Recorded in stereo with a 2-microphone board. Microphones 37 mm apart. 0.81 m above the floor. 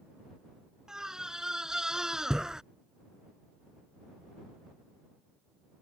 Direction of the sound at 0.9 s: 15° right (ahead or behind).